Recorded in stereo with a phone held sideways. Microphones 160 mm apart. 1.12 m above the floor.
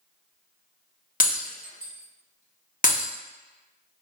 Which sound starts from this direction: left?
Breaking glass, at 1.2 s.